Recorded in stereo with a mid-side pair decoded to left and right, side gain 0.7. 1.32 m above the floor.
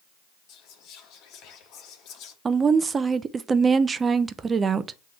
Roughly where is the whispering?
Ahead left.